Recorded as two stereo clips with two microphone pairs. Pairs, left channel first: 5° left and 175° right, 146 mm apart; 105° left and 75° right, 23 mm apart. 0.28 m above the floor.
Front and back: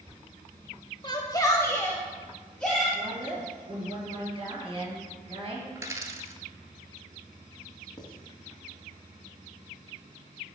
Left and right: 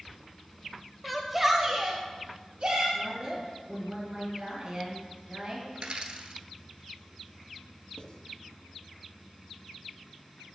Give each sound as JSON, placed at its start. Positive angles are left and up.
{"t": 1.0, "sound": "a shout", "azimuth_deg": 10, "distance_m": 1.0}
{"t": 3.0, "sound": "a woman speaking", "azimuth_deg": -125, "distance_m": 3.5}
{"t": 5.8, "sound": "a dropped coin", "azimuth_deg": -105, "distance_m": 0.8}
{"t": 8.0, "sound": "writing", "azimuth_deg": 60, "distance_m": 1.2}